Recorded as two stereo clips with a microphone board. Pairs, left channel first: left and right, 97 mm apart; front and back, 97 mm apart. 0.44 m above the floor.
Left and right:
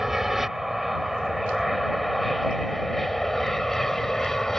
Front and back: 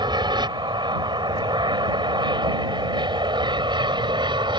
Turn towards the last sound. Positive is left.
turn(degrees=175)